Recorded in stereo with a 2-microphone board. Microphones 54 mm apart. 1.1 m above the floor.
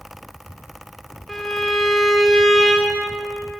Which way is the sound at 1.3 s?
10° left (ahead or behind).